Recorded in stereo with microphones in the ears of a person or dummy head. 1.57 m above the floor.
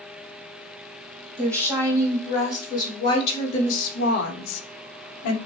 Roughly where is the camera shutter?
I don't hear a camera shutter.